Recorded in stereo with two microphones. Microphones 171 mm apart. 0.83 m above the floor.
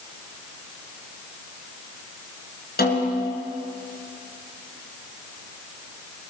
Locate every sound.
2.8 s a snare drum: 65° left (ahead or behind), 4.5 m